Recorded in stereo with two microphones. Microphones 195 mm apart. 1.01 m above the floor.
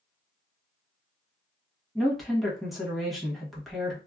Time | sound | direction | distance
1.9 | a woman speaking | centre (ahead or behind) | 1.2 m